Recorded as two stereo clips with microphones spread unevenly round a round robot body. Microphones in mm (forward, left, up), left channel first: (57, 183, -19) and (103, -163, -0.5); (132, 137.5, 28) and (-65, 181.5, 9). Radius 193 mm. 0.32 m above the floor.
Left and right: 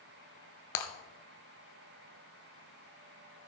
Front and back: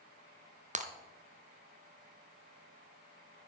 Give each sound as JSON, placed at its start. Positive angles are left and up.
{"t": 0.8, "sound": "breaking glass", "azimuth_deg": 110, "distance_m": 1.5}